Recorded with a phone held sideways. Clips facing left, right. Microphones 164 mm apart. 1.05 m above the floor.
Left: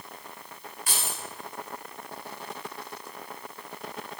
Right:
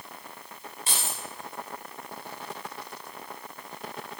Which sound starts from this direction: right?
Keys jangling, at 0.9 s.